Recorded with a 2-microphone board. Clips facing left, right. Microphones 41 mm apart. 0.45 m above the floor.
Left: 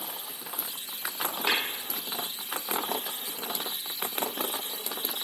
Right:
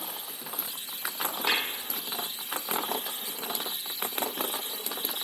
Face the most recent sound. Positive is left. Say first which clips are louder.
# even
turn(degrees=30)  # may be behind; listen again after turning